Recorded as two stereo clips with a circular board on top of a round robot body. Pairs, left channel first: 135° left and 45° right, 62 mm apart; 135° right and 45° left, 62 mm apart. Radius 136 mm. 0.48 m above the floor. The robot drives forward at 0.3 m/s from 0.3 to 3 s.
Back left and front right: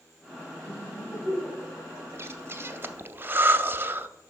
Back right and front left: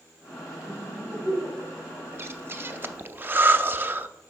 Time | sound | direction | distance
0.6 | laughter | 95° left | 3.5 m
2.1 | breathing | straight ahead | 0.7 m